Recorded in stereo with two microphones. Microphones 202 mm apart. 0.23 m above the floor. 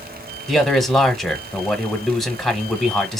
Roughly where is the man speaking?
Centre.